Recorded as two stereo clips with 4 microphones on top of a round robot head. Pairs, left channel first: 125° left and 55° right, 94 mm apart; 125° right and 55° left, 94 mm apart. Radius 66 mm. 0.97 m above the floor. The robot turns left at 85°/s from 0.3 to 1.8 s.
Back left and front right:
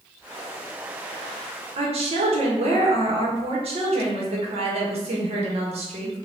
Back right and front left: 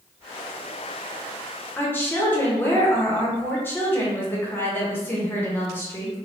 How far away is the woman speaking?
About 0.9 m.